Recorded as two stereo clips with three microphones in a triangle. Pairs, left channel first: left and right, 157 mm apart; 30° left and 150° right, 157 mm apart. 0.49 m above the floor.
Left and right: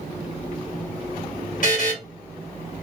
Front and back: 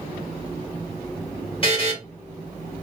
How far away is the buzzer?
About 2.5 m.